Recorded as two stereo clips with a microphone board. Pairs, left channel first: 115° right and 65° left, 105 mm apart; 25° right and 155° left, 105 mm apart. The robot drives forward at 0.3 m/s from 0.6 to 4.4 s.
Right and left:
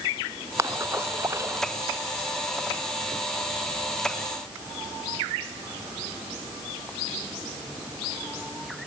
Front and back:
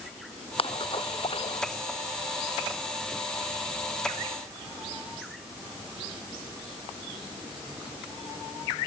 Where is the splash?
5° left.